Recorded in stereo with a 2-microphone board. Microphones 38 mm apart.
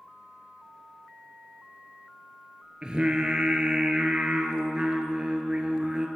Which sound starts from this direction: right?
Singing, at 2.8 s.